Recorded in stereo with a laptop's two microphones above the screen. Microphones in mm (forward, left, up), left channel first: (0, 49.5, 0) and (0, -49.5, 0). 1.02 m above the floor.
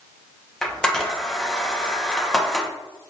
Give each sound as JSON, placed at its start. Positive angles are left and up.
{"t": 0.6, "sound": "a camera shutter", "side_deg": 5, "distance_m": 1.1}